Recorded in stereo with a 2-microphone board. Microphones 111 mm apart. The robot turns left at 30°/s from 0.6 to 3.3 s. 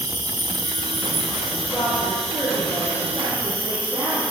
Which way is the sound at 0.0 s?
35° right.